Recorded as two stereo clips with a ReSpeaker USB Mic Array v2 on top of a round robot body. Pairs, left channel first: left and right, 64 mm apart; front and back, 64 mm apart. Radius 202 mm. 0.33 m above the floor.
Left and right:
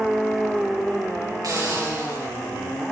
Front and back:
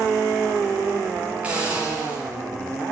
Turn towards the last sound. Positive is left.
turn(degrees=-110)